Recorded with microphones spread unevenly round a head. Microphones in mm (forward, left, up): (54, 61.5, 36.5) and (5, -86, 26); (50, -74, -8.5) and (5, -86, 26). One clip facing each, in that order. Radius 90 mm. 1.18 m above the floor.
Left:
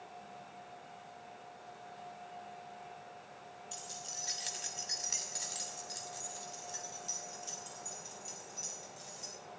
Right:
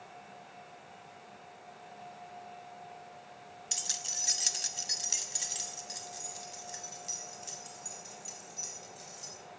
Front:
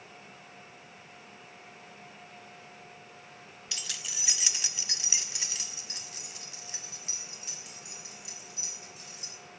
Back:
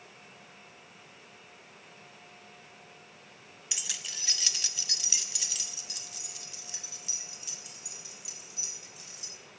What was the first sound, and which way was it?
Keys jangling, 115° right.